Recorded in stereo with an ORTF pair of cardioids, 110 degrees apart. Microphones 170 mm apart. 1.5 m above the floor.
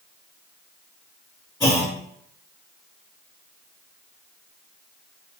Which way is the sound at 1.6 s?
20° left.